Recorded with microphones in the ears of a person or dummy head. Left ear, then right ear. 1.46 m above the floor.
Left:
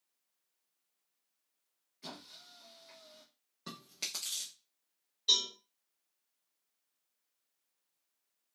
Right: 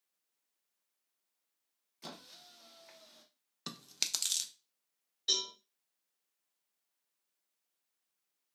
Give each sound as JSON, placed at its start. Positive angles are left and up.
{"t": 2.0, "sound": "a squeak", "side_deg": -25, "distance_m": 0.6}
{"t": 3.7, "sound": "chewing", "side_deg": -50, "distance_m": 0.5}
{"t": 5.3, "sound": "a cowbell", "side_deg": -20, "distance_m": 2.0}